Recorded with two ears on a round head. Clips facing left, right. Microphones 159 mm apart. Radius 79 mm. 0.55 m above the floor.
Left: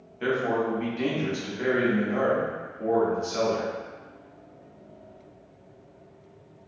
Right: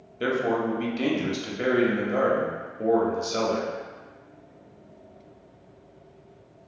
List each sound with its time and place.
0.2 s a man speaking: 45° right (ahead or behind), 0.8 m